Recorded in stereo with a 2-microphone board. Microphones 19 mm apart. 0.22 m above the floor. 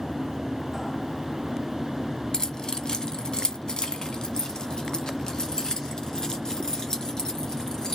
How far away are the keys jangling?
About 1.4 m.